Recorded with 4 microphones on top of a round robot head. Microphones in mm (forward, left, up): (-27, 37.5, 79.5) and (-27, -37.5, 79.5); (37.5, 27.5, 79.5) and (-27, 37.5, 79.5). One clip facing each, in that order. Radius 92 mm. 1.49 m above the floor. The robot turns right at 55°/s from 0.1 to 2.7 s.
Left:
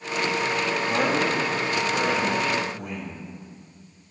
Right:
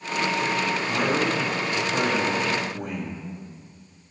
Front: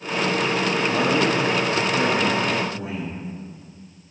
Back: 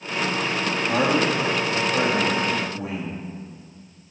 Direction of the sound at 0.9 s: 175° left.